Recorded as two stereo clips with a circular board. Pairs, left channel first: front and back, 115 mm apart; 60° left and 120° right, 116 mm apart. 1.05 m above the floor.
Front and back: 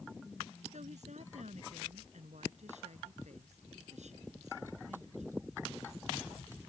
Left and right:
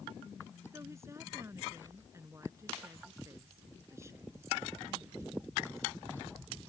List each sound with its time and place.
0.7 s a woman speaking: 175° left